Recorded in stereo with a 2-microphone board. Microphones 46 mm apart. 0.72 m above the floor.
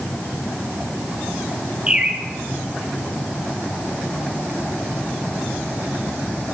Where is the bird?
25° right (ahead or behind), 0.9 m.